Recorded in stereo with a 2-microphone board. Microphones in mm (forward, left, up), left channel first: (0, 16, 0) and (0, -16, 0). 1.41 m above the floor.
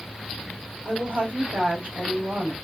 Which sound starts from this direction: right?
A woman speaking, at 0.8 s.